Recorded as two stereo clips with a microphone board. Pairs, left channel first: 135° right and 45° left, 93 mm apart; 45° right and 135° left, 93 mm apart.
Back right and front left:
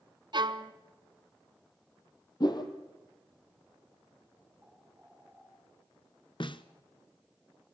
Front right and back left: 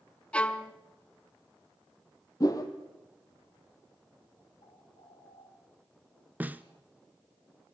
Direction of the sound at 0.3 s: 30° left.